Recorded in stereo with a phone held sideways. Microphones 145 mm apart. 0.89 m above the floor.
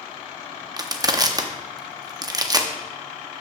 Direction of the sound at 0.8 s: 25° right (ahead or behind).